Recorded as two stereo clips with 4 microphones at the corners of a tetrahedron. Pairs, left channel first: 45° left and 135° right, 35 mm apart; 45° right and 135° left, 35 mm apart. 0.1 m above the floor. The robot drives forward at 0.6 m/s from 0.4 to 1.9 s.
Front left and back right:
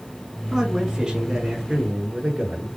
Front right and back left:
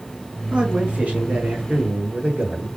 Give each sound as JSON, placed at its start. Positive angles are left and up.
{"t": 0.5, "sound": "a man speaking", "azimuth_deg": 150, "distance_m": 1.4}